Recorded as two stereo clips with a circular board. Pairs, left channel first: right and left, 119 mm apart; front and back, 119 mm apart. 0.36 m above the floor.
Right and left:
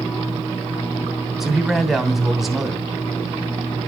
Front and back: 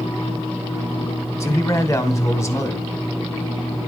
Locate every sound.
1.4 s a man speaking: 5° left, 1.2 m